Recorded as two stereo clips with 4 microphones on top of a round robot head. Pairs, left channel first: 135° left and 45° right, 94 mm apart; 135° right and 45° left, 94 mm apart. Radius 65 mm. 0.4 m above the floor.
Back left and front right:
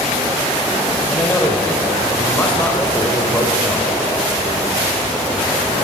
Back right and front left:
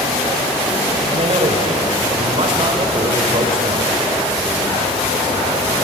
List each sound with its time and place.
1.1 s a man speaking: 65° left, 1.6 m